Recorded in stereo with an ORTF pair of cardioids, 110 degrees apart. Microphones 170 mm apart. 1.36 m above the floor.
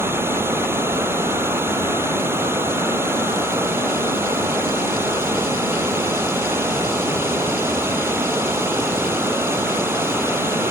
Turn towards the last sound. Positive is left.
turn(degrees=-15)